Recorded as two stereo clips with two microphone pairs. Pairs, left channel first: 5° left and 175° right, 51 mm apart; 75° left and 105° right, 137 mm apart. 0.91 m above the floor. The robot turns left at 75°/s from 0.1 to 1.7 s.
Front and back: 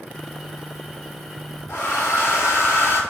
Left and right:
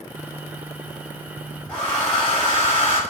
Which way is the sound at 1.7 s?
Straight ahead.